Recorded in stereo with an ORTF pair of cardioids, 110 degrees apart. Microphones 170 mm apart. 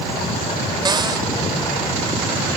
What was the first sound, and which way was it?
A cupboard door, 25° right.